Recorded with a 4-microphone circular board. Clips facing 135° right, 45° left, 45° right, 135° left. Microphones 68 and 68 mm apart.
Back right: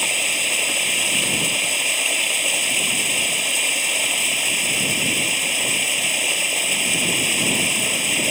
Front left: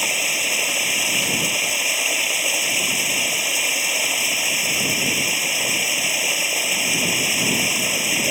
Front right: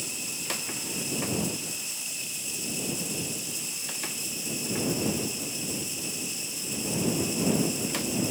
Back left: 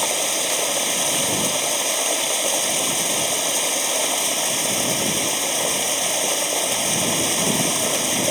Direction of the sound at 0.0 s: 130° left.